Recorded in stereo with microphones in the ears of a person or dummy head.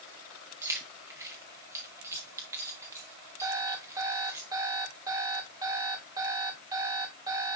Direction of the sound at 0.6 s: 15° right (ahead or behind).